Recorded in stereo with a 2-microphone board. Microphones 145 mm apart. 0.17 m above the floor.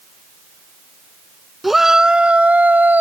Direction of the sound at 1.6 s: Centre (ahead or behind).